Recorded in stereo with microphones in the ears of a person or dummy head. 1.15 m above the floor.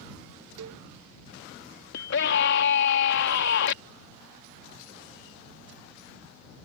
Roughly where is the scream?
Left.